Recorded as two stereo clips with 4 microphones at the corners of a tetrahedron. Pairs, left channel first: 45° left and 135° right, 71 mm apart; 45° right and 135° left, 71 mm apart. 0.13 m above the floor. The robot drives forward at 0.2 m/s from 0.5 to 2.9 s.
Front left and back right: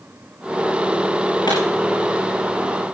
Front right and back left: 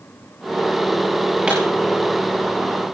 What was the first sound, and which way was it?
A pop, 60° left.